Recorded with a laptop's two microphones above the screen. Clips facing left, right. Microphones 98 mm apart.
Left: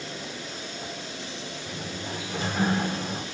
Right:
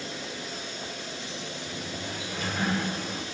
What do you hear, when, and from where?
1.6 s a sliding door: 30° left (ahead or behind), 3 m